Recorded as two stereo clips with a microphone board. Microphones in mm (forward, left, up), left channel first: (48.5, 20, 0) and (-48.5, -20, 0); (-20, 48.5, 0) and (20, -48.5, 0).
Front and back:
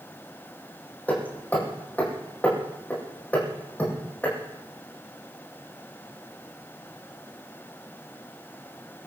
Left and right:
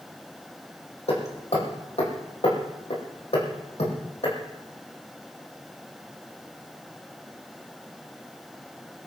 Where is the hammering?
95° left, 6.5 m.